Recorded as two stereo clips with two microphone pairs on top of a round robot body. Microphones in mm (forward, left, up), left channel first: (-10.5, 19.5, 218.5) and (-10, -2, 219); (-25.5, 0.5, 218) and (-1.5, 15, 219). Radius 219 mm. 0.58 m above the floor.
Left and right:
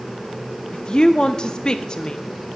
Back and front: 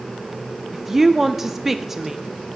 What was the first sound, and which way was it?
A woman speaking, 115° left.